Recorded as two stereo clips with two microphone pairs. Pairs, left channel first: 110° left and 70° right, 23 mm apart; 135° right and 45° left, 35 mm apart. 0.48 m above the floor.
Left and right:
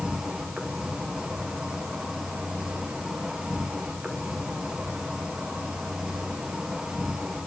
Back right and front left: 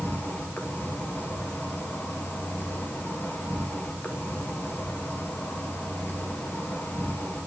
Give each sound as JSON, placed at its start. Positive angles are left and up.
{"t": 0.0, "sound": "an insect", "azimuth_deg": -125, "distance_m": 2.5}